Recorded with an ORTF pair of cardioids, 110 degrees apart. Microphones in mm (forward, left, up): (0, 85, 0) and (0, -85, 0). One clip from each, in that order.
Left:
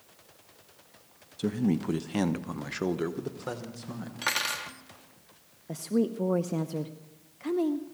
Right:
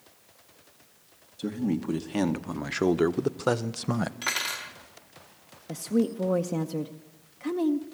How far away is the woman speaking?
About 0.7 m.